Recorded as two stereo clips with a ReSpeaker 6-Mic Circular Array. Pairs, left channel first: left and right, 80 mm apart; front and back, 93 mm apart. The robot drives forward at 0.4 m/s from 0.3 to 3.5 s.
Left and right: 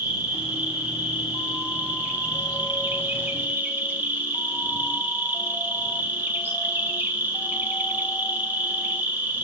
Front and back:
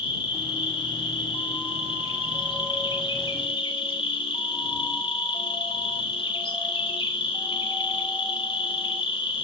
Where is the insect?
15° right, 4 m; by 9.4 s 20° right, 2.5 m.